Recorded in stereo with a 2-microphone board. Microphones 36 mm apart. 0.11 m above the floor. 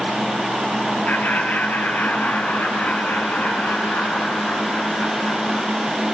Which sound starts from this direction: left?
Laughter, at 1.1 s.